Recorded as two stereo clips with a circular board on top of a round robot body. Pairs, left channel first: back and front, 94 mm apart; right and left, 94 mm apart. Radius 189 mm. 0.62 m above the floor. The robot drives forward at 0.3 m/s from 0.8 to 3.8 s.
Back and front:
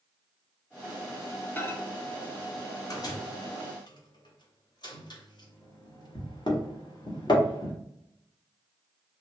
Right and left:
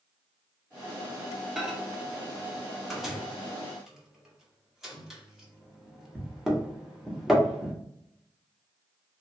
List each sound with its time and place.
1.6 s a microwave: 165° left, 0.9 m; by 7.7 s 175° left, 1.2 m